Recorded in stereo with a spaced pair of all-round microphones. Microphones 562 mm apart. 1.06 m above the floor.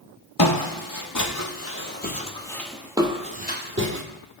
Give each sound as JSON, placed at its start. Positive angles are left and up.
{"t": 0.4, "sound": "footsteps", "side_deg": 40, "distance_m": 1.6}